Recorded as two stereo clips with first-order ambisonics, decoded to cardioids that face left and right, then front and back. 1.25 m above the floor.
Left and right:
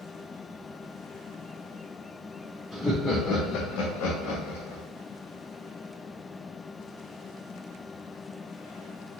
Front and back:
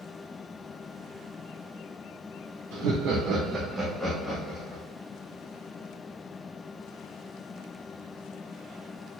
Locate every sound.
2.7 s laughter: straight behind, 0.6 m; by 4.8 s 70° left, 1.3 m